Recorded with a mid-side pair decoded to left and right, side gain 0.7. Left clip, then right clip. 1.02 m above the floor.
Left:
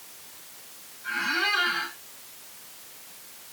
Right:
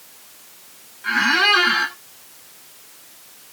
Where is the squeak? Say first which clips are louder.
Right 10 dB; 45° right, 1.9 m.